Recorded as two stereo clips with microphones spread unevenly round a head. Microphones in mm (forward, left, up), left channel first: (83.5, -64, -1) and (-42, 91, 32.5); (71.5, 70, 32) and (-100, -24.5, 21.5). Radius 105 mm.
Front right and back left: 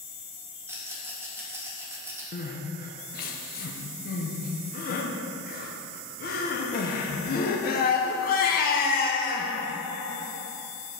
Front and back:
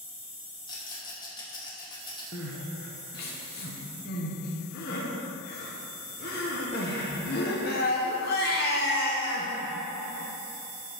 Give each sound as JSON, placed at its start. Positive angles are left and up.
{"t": 0.7, "sound": "a rattle", "azimuth_deg": 75, "distance_m": 1.2}
{"t": 2.3, "sound": "crying", "azimuth_deg": -5, "distance_m": 0.9}